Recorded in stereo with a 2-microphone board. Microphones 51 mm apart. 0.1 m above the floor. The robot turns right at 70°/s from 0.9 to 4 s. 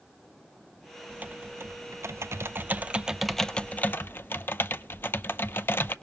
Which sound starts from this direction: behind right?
Typing on a keyboard, at 1.1 s.